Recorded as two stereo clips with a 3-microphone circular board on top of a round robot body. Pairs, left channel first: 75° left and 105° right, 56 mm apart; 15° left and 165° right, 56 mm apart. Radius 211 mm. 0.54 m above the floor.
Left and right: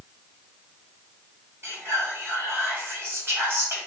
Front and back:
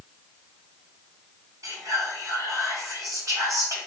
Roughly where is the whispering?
Behind right.